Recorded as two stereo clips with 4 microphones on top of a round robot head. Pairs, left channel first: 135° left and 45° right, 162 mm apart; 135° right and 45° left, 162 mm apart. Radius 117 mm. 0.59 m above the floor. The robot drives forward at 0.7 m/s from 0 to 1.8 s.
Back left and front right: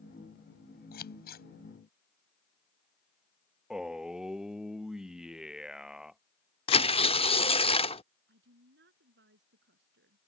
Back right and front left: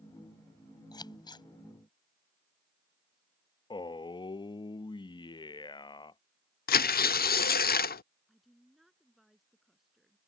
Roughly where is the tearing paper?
Behind.